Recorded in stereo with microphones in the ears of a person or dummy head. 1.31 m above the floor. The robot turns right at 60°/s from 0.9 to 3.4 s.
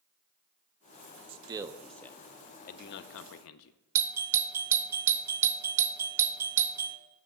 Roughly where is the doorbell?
Centre.